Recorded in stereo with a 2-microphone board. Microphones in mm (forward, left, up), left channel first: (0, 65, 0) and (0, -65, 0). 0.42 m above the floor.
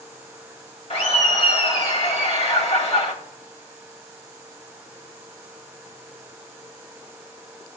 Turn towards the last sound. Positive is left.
turn(degrees=55)  # may be behind; listen again after turning